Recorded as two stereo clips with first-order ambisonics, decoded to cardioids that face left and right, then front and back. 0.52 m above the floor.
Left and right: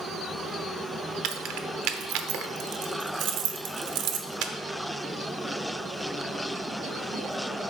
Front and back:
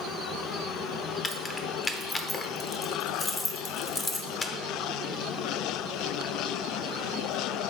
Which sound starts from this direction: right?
Keys jangling, at 1.2 s.